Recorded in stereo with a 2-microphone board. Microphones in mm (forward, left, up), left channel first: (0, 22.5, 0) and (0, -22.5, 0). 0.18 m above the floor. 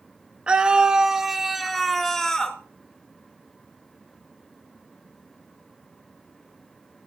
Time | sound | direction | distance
0.5 | a scream | 25° right (ahead or behind) | 1.5 m